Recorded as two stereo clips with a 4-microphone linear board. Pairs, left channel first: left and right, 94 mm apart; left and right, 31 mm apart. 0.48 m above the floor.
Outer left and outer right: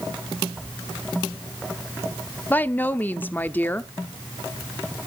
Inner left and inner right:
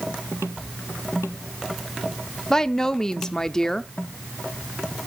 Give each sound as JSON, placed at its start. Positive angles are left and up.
{"t": 2.5, "sound": "a woman speaking", "side_deg": 20, "distance_m": 0.7}